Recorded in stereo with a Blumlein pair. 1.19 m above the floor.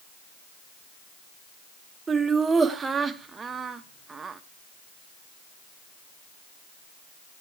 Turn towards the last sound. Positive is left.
turn(degrees=-15)